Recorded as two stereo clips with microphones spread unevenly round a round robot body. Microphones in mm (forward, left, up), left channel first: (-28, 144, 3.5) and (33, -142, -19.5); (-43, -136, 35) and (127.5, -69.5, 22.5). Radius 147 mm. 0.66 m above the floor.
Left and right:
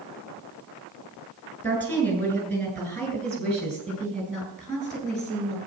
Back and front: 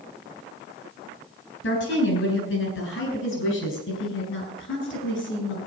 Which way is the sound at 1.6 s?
175° right.